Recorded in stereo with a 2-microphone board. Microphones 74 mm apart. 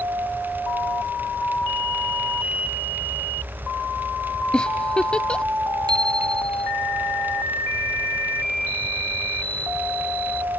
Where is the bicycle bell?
85° right.